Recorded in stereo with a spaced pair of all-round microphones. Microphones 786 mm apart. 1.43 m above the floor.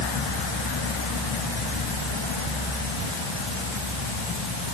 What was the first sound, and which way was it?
Only background noise.